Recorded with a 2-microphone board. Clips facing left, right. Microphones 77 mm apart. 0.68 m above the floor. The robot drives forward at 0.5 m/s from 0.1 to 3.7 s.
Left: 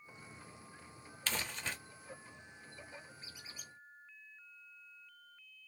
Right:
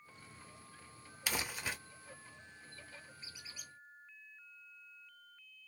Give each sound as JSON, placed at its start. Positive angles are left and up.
{"t": 1.3, "sound": "crumpling", "side_deg": -10, "distance_m": 0.8}
{"t": 3.2, "sound": "a squeak", "side_deg": 45, "distance_m": 1.6}